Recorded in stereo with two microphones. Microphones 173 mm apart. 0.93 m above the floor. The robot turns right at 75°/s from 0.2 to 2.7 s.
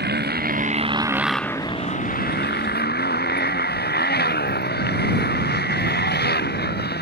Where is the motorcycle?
85° right; by 7.0 s 85° left.